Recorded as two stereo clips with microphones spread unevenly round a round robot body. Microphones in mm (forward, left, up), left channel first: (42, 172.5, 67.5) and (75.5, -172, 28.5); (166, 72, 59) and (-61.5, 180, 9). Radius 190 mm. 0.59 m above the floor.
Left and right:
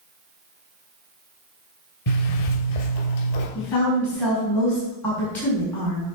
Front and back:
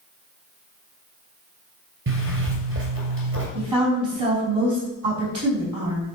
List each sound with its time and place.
2.1 s a zipper: 125° left, 2.5 m
3.5 s a woman speaking: straight behind, 4 m